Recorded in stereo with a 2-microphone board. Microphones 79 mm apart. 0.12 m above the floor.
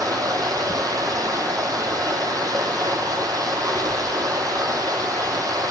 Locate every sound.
0.0 s running water: 50° right (ahead or behind), 0.9 m